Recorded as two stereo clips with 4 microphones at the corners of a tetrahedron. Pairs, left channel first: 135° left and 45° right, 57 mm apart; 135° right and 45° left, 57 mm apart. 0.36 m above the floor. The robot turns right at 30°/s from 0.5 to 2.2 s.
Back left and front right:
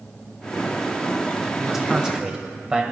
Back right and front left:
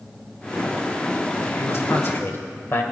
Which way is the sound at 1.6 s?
130° right.